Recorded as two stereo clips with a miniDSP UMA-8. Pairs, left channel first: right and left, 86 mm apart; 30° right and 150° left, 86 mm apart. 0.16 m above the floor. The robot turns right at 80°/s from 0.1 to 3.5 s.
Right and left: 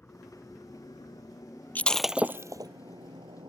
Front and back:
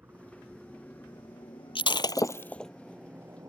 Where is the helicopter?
155° right; by 3.5 s 105° left.